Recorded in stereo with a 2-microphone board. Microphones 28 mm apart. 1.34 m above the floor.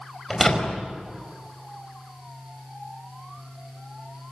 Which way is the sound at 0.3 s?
10° left (ahead or behind).